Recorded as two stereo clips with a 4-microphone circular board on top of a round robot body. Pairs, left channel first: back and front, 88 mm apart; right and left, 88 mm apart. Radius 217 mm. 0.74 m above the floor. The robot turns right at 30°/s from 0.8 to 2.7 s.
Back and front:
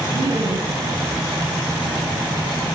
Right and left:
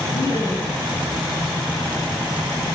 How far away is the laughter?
About 9 m.